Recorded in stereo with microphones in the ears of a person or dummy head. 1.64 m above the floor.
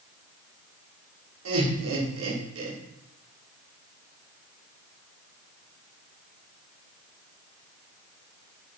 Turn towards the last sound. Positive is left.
turn(degrees=-75)  # may be behind; listen again after turning